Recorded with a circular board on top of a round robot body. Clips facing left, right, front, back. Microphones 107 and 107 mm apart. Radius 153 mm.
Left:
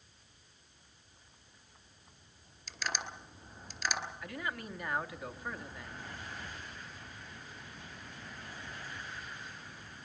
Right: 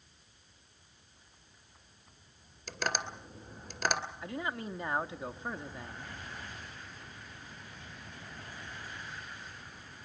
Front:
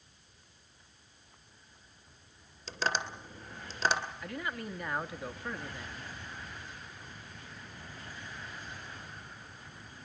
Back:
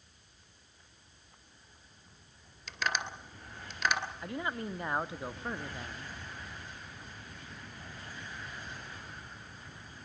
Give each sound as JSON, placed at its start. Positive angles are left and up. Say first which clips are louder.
{"t": 2.7, "sound": "tapping", "louder": "right 5 dB, front 2 dB", "azimuth_deg": -60, "distance_m": 2.5}
{"t": 4.2, "sound": "a man speaking", "louder": "right 3 dB, back 2 dB", "azimuth_deg": -135, "distance_m": 1.4}